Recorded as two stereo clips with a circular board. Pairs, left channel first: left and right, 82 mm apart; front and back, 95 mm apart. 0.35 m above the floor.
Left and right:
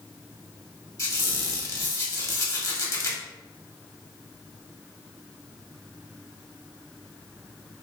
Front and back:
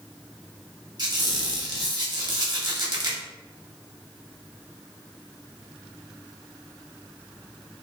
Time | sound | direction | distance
1.0 | a squeak | 140° left | 0.7 m